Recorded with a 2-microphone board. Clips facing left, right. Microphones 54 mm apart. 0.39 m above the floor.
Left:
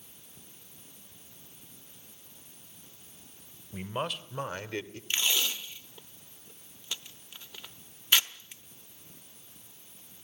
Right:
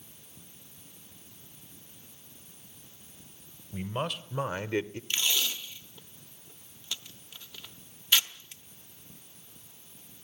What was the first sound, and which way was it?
A man speaking, 10° left (ahead or behind).